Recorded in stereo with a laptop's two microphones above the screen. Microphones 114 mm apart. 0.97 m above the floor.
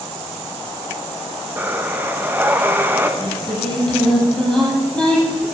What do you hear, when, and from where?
1.6 s breathing: 15° right (ahead or behind), 1.0 m
3.2 s singing: 10° left (ahead or behind), 8 m